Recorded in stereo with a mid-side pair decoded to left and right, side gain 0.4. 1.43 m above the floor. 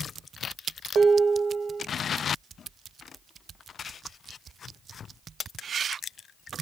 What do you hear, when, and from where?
0.9 s dishes clattering: 60° right, 1.3 m